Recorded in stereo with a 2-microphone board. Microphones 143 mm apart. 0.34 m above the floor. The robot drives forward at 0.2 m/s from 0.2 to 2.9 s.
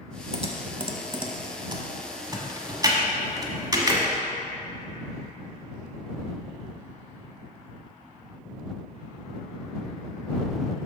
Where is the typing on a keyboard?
45° right (ahead or behind), 0.7 m; by 4.0 s 25° right (ahead or behind), 1.1 m.